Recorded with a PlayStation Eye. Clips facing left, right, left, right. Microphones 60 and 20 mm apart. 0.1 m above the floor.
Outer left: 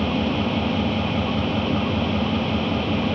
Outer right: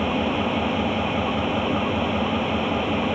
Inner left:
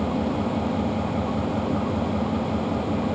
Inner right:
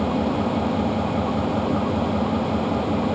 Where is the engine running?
15° right (ahead or behind), 0.7 m.